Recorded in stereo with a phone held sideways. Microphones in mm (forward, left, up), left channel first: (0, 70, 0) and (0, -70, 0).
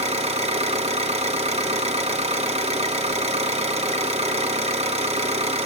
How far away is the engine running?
About 1.0 m.